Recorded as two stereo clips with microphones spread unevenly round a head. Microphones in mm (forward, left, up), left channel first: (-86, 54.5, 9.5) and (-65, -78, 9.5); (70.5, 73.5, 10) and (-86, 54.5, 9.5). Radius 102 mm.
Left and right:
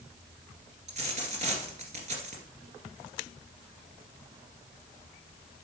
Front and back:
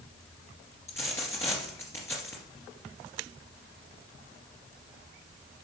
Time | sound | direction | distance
0.9 | a dropped coin | 65° right | 2 m